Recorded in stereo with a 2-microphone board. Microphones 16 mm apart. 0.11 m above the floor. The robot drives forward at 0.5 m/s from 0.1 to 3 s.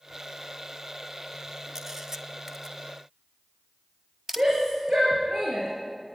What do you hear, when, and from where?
1.8 s a camera shutter: 30° right (ahead or behind), 0.5 m; by 4.5 s 20° right (ahead or behind), 0.8 m
4.4 s a shout: 60° right (ahead or behind), 7 m